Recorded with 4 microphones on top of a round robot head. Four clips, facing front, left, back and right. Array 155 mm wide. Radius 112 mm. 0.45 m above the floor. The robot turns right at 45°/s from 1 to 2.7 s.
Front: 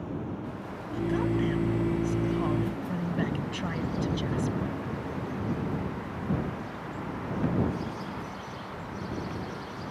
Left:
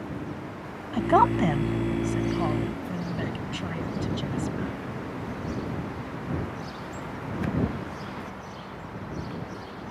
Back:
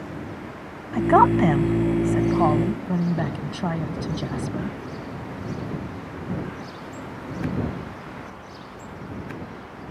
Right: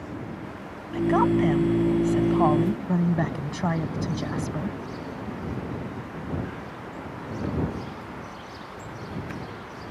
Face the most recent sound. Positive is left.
turn(degrees=-130)